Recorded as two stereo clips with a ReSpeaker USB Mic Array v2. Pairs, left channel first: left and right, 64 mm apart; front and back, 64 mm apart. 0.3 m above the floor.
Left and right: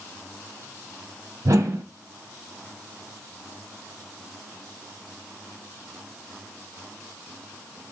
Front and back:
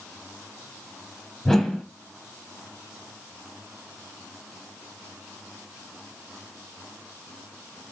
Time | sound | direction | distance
1.4 | a whoosh | 85° right | 0.6 m